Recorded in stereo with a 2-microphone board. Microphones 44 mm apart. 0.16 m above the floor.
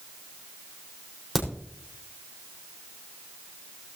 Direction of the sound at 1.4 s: 5° left (ahead or behind).